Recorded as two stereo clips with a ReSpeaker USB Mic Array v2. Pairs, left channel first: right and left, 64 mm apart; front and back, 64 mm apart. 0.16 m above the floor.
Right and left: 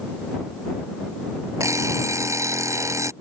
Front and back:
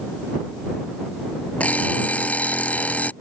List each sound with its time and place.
1.6 s an alarm clock: 65° left